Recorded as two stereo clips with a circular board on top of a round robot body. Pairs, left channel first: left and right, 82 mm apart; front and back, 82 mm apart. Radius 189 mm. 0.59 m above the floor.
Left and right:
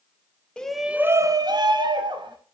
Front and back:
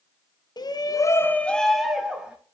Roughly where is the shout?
Ahead.